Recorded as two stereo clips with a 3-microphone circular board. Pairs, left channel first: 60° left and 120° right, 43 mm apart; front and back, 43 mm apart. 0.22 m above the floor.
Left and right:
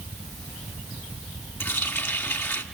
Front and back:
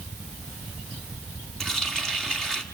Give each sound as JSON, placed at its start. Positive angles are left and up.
{"t": 1.6, "sound": "a running tap", "azimuth_deg": 75, "distance_m": 1.6}